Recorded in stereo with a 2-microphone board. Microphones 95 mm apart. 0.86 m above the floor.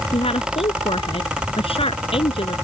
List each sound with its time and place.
0.1 s a woman speaking: 80° left; by 2.5 s 70° left (ahead or behind)